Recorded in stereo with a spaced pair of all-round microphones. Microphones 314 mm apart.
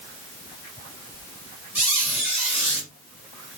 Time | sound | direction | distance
1.8 | a squeak | 65° left (ahead or behind) | 2.5 m